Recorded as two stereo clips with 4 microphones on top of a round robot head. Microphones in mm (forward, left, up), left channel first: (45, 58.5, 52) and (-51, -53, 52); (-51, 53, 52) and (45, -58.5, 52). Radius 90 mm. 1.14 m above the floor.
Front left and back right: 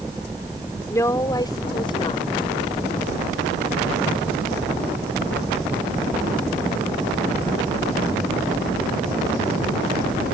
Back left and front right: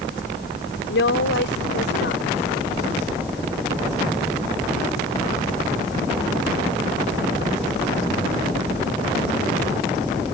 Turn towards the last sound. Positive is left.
turn(degrees=105)